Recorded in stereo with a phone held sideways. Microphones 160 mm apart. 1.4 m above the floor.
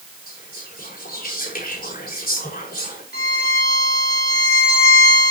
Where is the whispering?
70° left (ahead or behind), 4.5 m.